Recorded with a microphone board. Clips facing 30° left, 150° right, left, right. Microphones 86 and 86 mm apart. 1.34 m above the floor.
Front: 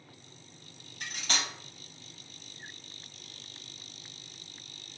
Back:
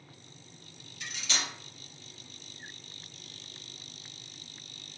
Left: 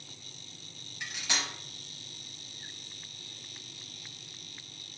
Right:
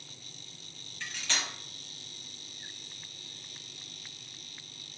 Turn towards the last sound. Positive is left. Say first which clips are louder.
# front 2 dB, left 1 dB
turn(degrees=20)